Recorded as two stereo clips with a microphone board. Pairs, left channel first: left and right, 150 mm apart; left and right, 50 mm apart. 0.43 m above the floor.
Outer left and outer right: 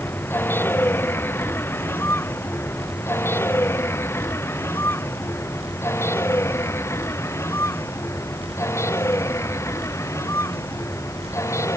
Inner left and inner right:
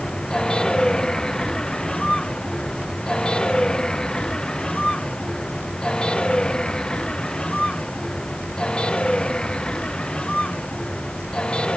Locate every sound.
0.0 s a vehicle: 15° left (ahead or behind); by 11.8 s 20° left (ahead or behind)